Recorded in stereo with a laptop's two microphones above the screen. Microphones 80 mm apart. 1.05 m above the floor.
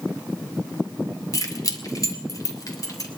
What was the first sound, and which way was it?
Keys jangling, 50° left (ahead or behind).